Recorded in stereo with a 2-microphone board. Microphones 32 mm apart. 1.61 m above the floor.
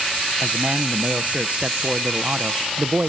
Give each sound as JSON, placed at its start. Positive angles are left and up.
{"t": 0.4, "sound": "a man speaking", "side_deg": -45, "distance_m": 0.7}